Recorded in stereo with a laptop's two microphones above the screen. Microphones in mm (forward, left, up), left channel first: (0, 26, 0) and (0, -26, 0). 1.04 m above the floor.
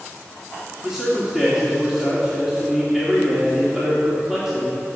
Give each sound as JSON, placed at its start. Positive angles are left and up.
{"t": 0.8, "sound": "a man speaking", "side_deg": -5, "distance_m": 3.0}